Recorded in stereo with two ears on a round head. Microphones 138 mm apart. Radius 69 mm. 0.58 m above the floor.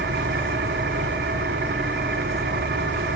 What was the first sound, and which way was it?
An engine running, 70° right (ahead or behind).